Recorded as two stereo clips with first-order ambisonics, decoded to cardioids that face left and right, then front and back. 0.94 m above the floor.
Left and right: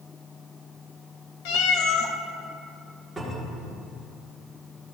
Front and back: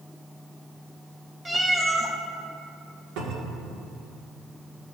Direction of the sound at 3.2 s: 170° right.